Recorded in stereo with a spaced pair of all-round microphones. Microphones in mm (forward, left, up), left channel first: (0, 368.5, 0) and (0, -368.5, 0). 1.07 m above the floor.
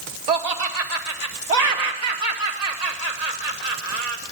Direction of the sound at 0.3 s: 60° right (ahead or behind).